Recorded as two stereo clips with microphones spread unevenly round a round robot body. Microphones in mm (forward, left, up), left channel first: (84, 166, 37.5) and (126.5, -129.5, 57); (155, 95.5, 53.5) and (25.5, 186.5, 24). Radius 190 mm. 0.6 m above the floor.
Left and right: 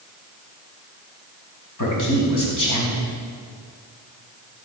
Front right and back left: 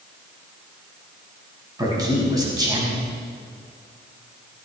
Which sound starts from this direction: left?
A man speaking, at 1.8 s.